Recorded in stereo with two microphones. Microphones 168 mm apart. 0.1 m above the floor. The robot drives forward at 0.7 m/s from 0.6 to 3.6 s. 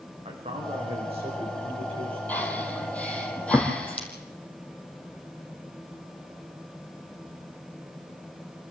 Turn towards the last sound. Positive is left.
turn(degrees=10)  # may be behind; listen again after turning